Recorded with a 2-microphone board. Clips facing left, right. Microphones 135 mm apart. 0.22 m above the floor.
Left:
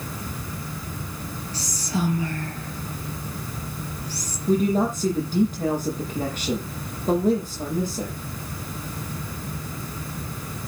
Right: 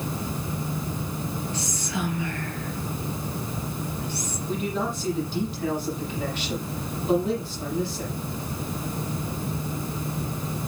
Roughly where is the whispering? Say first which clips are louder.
Left 2 dB; left.